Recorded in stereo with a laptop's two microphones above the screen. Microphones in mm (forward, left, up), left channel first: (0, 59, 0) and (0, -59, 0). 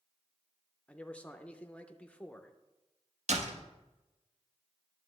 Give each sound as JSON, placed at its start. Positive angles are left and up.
{"t": 0.9, "sound": "a man speaking", "side_deg": 10, "distance_m": 0.5}
{"t": 3.3, "sound": "a door slam", "side_deg": -70, "distance_m": 1.0}